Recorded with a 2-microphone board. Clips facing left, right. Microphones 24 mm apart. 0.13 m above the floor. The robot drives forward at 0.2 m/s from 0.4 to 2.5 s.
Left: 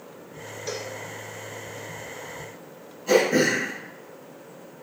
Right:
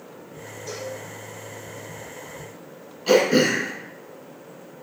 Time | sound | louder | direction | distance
0.7 | a cowbell | even | 45° left (ahead or behind) | 0.9 m
3.1 | throat clearing | right 2 dB | 75° right (ahead or behind) | 2 m